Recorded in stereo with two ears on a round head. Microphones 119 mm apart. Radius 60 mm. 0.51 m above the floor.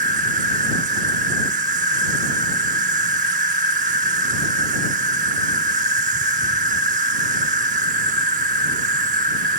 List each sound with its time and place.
0.0 s an insect: 60° right (ahead or behind)